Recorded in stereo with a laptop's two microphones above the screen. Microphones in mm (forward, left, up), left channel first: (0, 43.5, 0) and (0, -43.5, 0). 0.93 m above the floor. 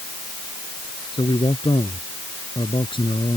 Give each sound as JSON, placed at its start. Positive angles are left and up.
{"t": 1.1, "sound": "a man speaking", "side_deg": 75}